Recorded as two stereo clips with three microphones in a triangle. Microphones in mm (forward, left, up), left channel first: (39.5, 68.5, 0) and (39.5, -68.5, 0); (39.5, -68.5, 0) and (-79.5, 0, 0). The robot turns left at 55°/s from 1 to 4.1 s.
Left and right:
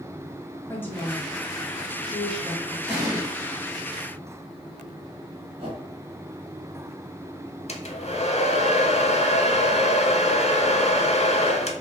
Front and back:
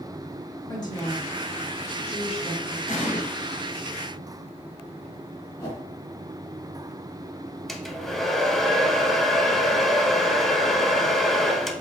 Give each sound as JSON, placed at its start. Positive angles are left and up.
{"t": 0.7, "sound": "a woman speaking", "azimuth_deg": 20, "distance_m": 1.5}
{"t": 2.9, "sound": "an explosion", "azimuth_deg": -15, "distance_m": 1.7}
{"t": 5.6, "sound": "a whoosh", "azimuth_deg": -80, "distance_m": 1.3}
{"t": 7.7, "sound": "a hair dryer", "azimuth_deg": 55, "distance_m": 0.6}